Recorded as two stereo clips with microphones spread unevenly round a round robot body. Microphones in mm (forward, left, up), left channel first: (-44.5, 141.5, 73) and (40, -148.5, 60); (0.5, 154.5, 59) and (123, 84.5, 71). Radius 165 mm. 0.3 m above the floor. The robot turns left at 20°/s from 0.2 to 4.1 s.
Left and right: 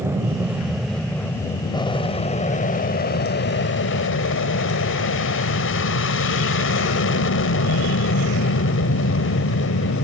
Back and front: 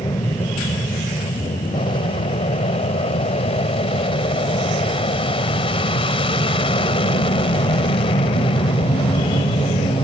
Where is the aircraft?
150° right; by 10.0 s 130° left.